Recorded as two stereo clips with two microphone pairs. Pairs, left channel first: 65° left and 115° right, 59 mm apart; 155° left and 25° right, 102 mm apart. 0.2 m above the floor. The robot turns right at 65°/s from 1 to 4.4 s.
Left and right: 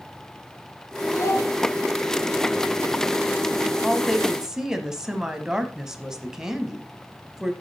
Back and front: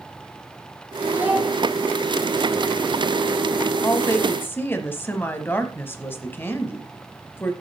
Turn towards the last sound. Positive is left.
turn(degrees=180)